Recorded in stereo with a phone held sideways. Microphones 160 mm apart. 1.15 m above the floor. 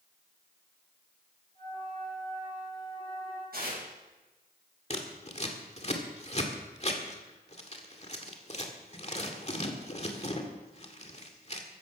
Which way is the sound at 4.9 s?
45° left (ahead or behind).